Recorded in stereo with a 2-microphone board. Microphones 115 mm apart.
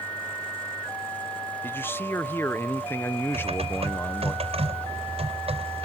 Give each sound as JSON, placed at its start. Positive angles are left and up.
{"t": 1.6, "sound": "a man speaking", "side_deg": 20}
{"t": 3.3, "sound": "typing on a keyboard", "side_deg": -60}